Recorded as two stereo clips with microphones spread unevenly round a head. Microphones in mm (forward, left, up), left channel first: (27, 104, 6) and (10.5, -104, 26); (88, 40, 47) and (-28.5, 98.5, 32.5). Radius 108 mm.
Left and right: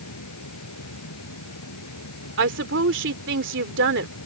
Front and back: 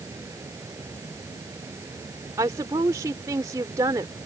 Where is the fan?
85° left.